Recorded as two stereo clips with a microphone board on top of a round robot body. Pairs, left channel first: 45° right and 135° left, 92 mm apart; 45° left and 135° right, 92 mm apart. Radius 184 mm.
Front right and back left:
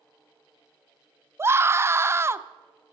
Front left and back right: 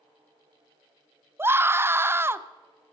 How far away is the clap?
I don't hear a clap.